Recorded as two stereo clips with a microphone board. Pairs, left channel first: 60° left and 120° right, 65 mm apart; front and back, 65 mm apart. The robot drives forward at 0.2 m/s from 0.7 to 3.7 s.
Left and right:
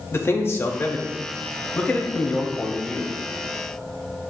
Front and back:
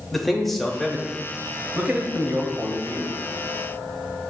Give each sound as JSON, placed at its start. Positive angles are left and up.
{"t": 0.1, "sound": "a man speaking", "azimuth_deg": 90, "distance_m": 0.6}